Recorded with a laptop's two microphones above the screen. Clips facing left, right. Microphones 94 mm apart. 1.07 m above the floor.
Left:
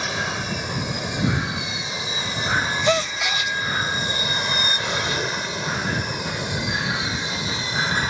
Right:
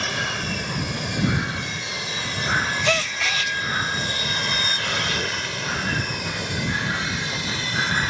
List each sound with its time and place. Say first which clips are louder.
0.0 s an aircraft: left 1 dB; 10° left (ahead or behind); by 8.1 s 15° left (ahead or behind)
2.9 s a gasp: left 3 dB; 15° left (ahead or behind)